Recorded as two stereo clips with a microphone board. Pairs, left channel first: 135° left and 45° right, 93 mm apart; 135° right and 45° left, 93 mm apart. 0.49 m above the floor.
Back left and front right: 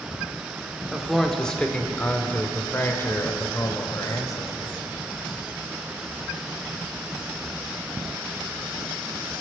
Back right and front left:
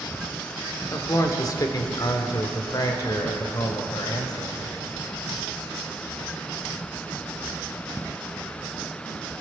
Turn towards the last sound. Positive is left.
turn(degrees=-175)